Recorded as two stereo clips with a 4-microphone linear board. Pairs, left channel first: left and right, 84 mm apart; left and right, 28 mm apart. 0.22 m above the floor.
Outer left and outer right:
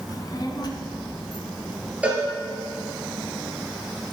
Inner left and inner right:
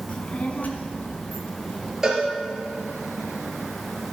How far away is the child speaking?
About 1.3 m.